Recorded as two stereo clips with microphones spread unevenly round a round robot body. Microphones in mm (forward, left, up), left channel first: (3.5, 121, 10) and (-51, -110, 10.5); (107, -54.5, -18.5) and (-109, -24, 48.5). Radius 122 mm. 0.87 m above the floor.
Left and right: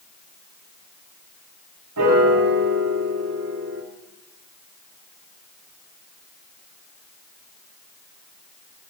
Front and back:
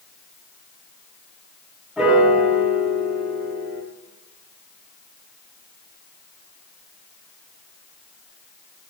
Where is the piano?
95° right, 2 m.